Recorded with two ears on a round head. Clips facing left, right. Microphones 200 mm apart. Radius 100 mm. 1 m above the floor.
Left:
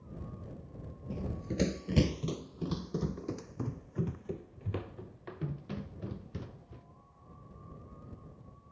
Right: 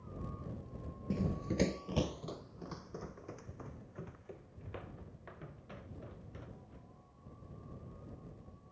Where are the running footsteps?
30° right (ahead or behind); by 6.8 s 55° left (ahead or behind).